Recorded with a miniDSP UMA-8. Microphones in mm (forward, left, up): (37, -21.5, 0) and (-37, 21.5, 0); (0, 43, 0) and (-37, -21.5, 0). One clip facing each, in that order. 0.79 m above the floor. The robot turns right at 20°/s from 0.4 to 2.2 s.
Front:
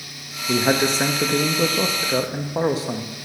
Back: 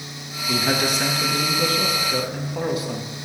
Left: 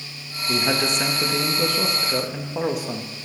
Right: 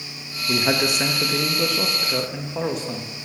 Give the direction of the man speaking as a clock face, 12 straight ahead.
2 o'clock.